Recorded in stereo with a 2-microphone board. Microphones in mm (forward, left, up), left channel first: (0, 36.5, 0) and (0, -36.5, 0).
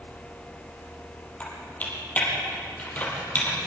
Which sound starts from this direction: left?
Typing on a keyboard, at 1.4 s.